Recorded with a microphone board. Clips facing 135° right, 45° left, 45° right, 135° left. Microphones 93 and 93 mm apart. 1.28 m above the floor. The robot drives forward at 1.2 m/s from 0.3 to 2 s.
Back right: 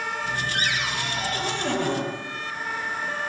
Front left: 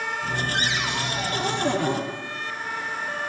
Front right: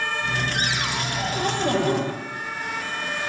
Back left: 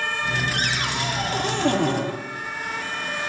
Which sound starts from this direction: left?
A cupboard door, at 0.5 s.